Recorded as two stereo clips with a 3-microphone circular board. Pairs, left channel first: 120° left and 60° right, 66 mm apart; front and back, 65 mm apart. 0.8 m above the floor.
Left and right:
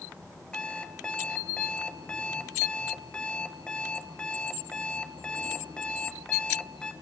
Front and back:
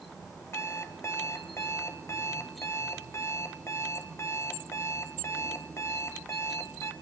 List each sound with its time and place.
0.5 s an alarm clock: 45° left, 2.5 m